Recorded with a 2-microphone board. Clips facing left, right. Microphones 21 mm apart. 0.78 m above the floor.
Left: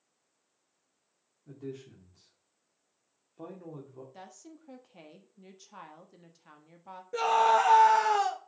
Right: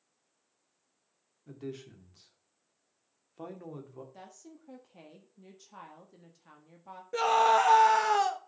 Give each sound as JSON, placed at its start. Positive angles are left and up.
{"t": 1.5, "sound": "a man speaking", "side_deg": -40, "distance_m": 2.5}
{"t": 4.1, "sound": "a woman speaking", "side_deg": 15, "distance_m": 1.5}
{"t": 7.1, "sound": "a scream", "side_deg": -10, "distance_m": 0.7}